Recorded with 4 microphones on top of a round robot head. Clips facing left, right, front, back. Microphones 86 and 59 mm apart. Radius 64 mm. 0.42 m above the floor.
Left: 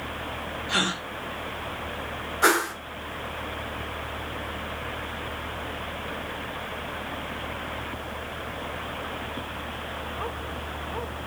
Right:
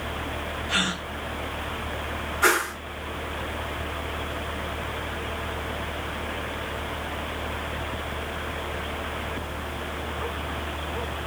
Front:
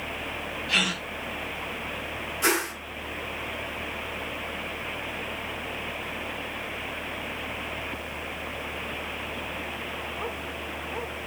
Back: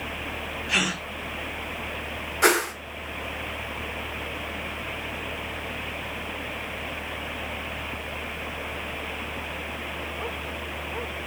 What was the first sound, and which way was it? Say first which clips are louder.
A gasp: left 1 dB, back 1 dB; 130° left.